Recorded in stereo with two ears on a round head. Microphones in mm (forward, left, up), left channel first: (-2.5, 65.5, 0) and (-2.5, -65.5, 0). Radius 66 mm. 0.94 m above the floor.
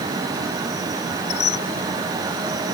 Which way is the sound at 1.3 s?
45° left (ahead or behind).